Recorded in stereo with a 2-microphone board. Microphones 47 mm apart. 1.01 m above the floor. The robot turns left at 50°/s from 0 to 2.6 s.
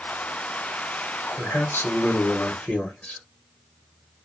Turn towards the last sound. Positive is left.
turn(degrees=40)